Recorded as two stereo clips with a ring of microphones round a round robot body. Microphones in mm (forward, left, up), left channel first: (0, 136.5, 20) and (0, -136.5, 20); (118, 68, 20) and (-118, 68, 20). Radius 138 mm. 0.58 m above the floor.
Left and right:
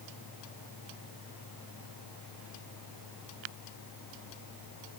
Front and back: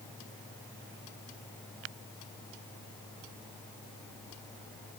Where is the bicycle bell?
I don't hear a bicycle bell.